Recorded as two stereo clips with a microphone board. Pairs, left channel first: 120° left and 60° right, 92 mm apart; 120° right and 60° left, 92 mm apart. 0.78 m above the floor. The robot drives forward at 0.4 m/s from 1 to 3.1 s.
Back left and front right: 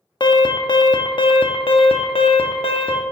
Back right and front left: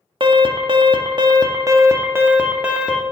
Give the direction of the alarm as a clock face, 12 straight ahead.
9 o'clock.